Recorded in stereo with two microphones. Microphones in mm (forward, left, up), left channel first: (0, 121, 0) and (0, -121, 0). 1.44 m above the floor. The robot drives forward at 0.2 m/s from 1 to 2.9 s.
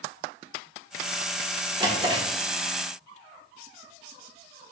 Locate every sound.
1.8 s a drawer: 20° right (ahead or behind), 1.1 m